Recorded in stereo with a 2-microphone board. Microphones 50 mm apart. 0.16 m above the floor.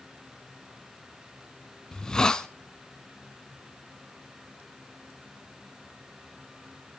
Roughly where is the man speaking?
I don't hear a man speaking.